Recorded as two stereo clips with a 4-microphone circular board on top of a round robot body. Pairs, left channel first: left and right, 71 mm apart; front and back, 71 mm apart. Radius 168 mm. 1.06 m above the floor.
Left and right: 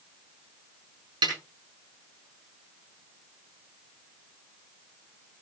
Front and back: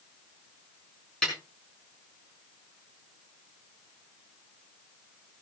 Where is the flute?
No flute in this recording.